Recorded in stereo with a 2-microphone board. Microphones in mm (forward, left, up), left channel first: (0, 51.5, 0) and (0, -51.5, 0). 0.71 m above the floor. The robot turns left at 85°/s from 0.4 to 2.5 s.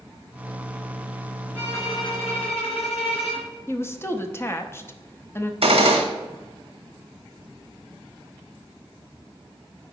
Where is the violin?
170° left, 3 m; by 3.5 s 90° left, 3 m.